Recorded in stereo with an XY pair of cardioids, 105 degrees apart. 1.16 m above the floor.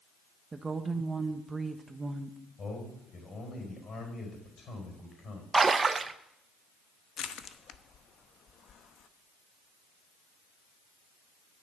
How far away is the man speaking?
About 4.5 m.